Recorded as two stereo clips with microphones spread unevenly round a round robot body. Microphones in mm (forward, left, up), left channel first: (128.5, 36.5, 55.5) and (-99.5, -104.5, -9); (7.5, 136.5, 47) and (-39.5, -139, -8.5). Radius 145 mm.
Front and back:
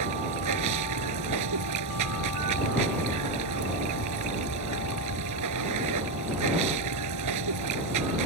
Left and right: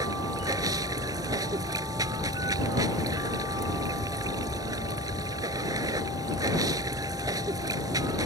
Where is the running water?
Straight behind.